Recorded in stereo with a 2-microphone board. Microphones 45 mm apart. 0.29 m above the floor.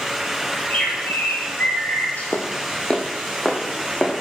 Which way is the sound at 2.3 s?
55° left (ahead or behind).